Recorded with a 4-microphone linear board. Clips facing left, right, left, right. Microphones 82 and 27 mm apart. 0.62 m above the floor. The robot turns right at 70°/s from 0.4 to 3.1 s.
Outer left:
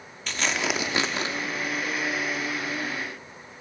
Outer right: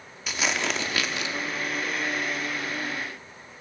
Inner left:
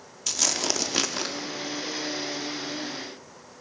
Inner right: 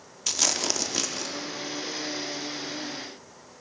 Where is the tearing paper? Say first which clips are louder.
Even, even; 10° right, 0.6 m; by 1.3 s 55° left, 0.6 m.